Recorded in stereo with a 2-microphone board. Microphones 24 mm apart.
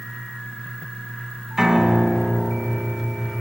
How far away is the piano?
About 3 m.